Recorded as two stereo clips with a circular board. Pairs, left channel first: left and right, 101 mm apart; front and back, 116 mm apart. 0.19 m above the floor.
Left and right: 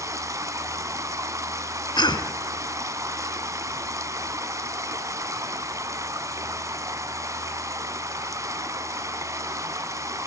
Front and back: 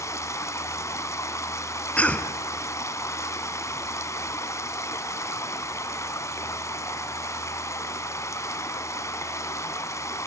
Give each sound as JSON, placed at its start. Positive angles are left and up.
{"t": 0.0, "sound": "running water", "azimuth_deg": -50, "distance_m": 1.0}
{"t": 2.0, "sound": "a cough", "azimuth_deg": 75, "distance_m": 1.4}